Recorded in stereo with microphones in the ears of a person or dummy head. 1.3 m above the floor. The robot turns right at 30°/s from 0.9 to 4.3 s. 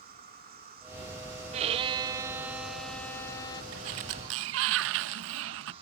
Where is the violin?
35° right; by 3.6 s 25° left.